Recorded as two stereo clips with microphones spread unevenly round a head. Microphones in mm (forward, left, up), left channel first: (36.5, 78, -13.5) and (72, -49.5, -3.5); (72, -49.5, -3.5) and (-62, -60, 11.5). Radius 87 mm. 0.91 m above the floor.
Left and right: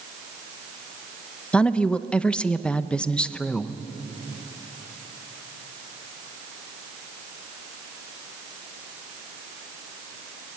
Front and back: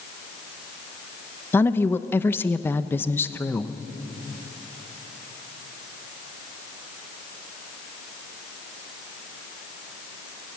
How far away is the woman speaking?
About 0.7 m.